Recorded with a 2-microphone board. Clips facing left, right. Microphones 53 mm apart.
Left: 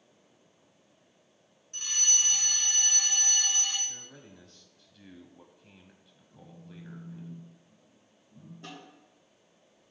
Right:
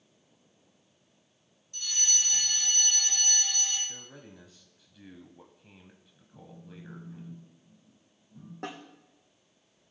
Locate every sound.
1.7 s a fire alarm: 45° left (ahead or behind), 3.5 m
3.9 s a man speaking: 10° right (ahead or behind), 1.0 m
6.3 s a phone buzzing: 15° right (ahead or behind), 1.6 m
8.6 s a snare drum: 70° right (ahead or behind), 3 m